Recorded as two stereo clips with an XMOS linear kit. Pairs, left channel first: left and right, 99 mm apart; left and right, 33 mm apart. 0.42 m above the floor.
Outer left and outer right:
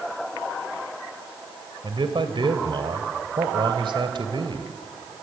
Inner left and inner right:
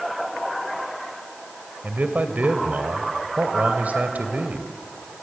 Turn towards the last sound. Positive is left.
turn(degrees=-55)  # may be behind; listen again after turning